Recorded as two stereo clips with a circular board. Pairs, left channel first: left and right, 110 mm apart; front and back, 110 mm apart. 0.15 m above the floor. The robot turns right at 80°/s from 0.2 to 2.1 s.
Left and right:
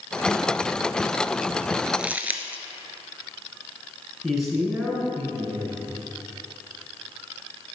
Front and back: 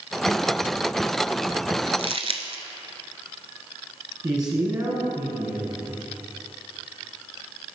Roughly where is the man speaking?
Behind.